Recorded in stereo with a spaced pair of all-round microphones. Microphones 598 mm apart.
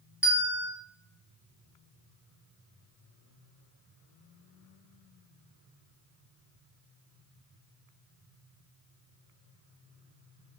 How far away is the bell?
About 2.0 m.